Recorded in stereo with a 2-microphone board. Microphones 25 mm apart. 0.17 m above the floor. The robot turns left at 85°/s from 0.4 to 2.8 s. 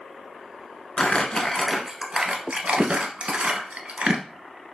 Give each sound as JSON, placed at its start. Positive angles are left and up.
{"t": 1.0, "sound": "crumpling", "side_deg": 50, "distance_m": 0.7}